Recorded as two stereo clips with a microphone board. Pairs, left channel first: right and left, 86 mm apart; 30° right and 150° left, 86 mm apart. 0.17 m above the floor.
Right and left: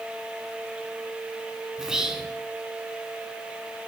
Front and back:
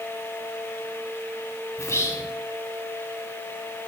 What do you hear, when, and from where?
1.8 s whispering: 10° left, 1.4 m